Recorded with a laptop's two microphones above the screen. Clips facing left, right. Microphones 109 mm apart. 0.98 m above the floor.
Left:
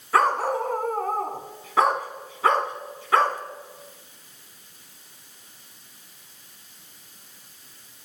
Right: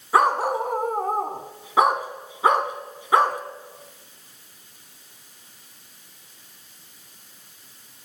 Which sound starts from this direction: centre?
A dog barking, at 0.1 s.